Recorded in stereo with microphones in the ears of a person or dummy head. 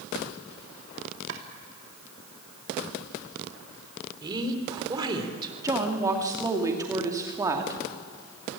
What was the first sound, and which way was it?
Chopping, 65° right (ahead or behind).